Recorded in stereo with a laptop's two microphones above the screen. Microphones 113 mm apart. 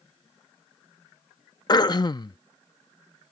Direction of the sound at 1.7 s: 40° left (ahead or behind).